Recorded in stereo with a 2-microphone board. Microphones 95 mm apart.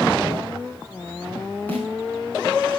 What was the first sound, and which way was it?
A snare drum, 15° left (ahead or behind).